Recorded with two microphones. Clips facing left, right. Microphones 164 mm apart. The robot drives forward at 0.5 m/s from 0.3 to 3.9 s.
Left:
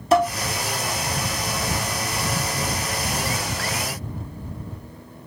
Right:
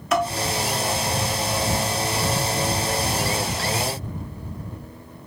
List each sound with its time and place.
0.1 s dishes clattering: 30° left (ahead or behind), 0.9 m